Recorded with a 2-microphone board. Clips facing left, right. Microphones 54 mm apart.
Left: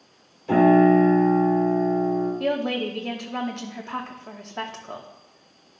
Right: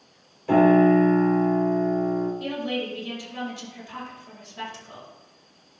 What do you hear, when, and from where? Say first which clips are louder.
0.5 s a piano: left 1 dB; 15° right (ahead or behind), 3.5 m
2.4 s a woman speaking: left 4 dB; 60° left (ahead or behind), 1.3 m